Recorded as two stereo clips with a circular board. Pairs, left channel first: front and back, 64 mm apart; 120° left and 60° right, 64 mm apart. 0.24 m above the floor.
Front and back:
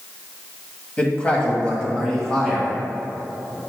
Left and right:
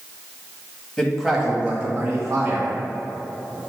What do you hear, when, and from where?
1.0 s a man speaking: 45° left, 1.4 m; by 2.7 s 80° right, 2 m